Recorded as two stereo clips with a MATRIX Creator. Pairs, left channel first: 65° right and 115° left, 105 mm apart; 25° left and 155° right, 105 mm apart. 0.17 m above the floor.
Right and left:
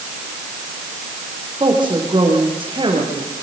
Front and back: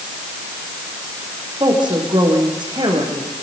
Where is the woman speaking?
155° left, 8 m.